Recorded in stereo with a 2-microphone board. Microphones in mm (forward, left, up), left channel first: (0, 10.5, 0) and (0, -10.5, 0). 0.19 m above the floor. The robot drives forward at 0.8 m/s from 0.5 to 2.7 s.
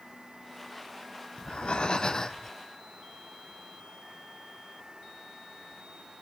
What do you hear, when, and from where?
1.4 s breathing: 65° left (ahead or behind), 0.6 m; by 2.5 s 25° left (ahead or behind), 1.3 m